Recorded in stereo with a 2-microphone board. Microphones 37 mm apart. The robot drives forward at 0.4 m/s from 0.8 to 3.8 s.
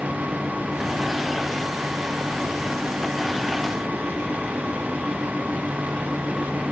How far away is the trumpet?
No trumpet in this recording.